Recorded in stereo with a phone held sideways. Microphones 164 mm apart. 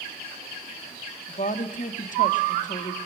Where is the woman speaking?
50° left (ahead or behind), 1.9 m.